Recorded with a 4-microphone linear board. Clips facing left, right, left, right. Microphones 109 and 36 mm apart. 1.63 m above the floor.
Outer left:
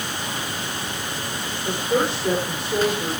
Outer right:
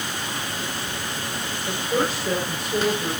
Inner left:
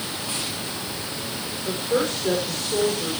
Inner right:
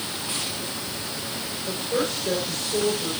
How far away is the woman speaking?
About 7.5 m.